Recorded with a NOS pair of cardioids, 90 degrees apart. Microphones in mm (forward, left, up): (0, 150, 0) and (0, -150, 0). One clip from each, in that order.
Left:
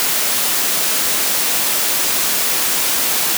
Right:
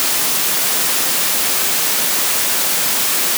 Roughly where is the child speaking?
I don't hear a child speaking.